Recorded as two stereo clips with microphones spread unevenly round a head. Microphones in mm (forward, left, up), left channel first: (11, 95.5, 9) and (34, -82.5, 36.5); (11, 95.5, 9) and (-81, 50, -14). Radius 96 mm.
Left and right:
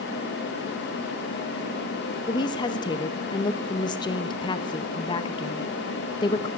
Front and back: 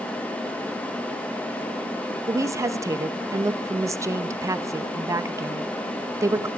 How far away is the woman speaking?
About 0.7 m.